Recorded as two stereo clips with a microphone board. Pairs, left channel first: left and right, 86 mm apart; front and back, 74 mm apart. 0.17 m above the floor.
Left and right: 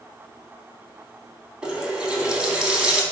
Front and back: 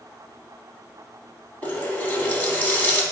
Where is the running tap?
25° right, 0.8 m.